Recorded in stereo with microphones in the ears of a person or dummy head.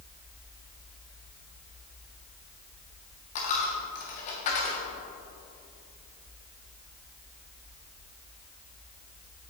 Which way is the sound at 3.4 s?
40° left (ahead or behind).